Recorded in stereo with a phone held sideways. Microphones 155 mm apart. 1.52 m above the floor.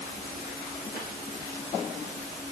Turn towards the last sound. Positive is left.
No sound to turn to.